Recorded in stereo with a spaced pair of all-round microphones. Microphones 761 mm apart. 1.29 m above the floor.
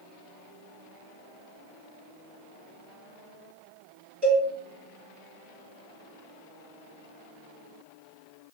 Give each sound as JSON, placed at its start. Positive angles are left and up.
{"t": 4.2, "sound": "a cowbell", "side_deg": 0, "distance_m": 2.0}